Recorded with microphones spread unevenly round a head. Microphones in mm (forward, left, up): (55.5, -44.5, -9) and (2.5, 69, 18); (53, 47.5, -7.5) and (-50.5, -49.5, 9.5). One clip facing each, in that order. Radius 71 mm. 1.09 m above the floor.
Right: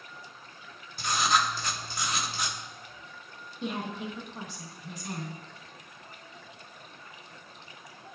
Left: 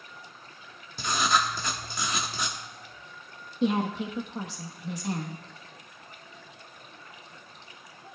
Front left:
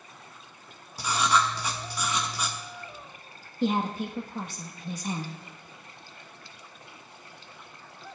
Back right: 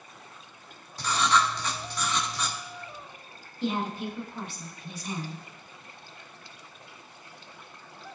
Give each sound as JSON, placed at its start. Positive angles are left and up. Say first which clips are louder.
{"t": 1.0, "sound": "writing", "louder": "left 1 dB, even", "azimuth_deg": 120, "distance_m": 1.4}
{"t": 3.6, "sound": "a woman speaking", "louder": "left 8 dB, front left 3 dB", "azimuth_deg": 95, "distance_m": 1.2}